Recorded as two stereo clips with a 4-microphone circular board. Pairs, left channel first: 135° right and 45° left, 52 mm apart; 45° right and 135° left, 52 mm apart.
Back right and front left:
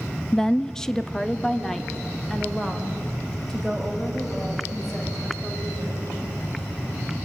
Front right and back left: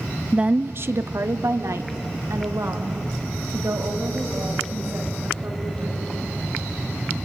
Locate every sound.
0.3 s a woman speaking: 170° left, 0.6 m; by 6.0 s 140° left, 6 m